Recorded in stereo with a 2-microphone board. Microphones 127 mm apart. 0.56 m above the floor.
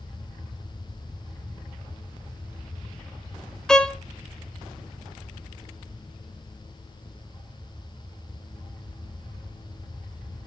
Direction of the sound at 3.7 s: 5° left (ahead or behind).